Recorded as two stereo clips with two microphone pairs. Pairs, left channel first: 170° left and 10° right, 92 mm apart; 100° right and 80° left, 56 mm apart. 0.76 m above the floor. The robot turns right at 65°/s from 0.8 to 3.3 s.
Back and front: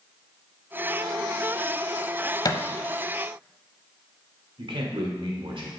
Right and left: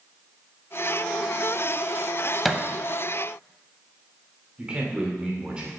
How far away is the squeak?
No squeak in this recording.